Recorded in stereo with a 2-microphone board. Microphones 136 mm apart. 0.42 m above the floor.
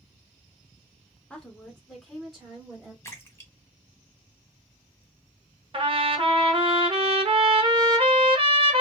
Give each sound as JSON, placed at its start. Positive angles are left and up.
{"t": 1.3, "sound": "a woman speaking", "side_deg": 10, "distance_m": 0.9}
{"t": 3.0, "sound": "a splash", "side_deg": 15, "distance_m": 0.8}
{"t": 5.7, "sound": "a trumpet", "side_deg": -35, "distance_m": 0.6}